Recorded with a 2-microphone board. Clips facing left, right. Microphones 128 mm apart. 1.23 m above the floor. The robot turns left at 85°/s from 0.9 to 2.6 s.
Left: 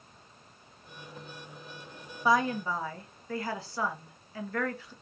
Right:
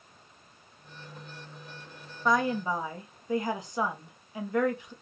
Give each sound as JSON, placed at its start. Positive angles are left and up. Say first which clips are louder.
{"t": 2.2, "sound": "a woman speaking", "louder": "even", "side_deg": 10, "distance_m": 0.8}